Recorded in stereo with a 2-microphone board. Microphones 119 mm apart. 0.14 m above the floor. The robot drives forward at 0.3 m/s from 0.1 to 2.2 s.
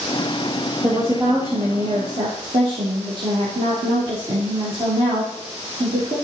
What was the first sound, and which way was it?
A woman speaking, 55° right (ahead or behind).